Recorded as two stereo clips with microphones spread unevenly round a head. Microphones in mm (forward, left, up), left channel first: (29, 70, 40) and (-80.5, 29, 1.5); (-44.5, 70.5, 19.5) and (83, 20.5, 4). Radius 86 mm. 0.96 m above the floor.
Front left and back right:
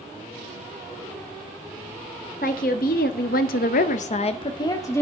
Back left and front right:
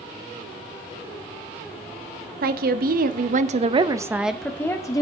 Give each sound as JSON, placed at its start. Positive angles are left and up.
{"t": 2.4, "sound": "a woman speaking", "azimuth_deg": -20, "distance_m": 1.2}